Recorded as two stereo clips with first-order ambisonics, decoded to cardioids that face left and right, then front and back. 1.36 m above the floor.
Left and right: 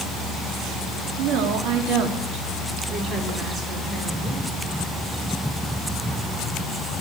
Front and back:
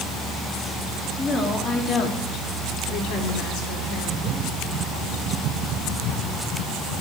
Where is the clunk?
I don't hear a clunk.